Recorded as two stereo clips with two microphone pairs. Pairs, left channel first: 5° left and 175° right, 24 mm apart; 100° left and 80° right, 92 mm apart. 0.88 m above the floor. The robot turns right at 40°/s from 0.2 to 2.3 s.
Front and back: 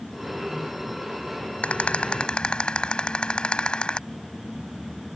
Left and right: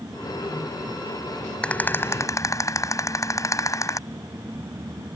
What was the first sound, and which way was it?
A rattle, 25° left.